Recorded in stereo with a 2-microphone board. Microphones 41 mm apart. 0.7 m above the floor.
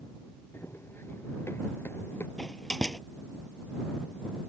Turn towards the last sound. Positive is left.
turn(degrees=15)  # may be behind; listen again after turning